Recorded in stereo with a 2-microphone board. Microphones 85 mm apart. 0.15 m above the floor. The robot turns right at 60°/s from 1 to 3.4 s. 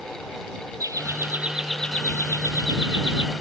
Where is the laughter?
40° right; by 3.3 s 95° left.